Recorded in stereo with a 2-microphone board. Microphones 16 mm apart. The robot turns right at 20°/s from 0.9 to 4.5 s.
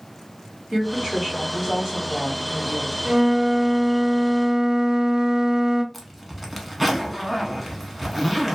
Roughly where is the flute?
Right.